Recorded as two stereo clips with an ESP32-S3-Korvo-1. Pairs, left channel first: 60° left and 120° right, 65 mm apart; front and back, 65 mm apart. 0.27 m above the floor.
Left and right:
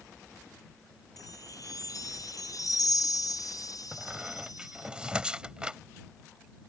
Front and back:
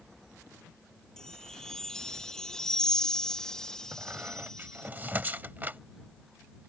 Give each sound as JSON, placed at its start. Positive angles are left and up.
{"t": 1.2, "sound": "a chime", "azimuth_deg": 80}
{"t": 3.9, "sound": "a squeak", "azimuth_deg": 180}